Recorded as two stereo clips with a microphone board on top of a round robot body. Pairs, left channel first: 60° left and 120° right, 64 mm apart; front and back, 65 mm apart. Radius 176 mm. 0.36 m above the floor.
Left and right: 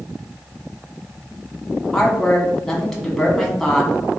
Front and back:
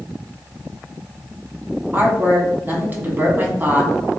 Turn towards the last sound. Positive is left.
turn(degrees=150)